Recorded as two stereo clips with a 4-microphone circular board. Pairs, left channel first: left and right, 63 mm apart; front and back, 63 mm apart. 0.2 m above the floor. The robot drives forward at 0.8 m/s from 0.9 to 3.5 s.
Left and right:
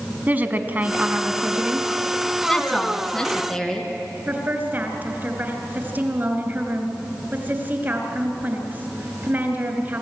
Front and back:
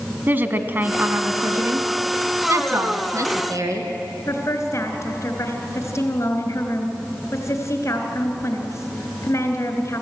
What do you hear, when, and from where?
0.3 s a woman speaking: 140° right, 1.4 m; by 1.9 s 155° right, 2.0 m
2.5 s a woman speaking: 165° left, 1.8 m; by 3.9 s 170° left, 2.5 m
4.3 s a woman speaking: 35° right, 3 m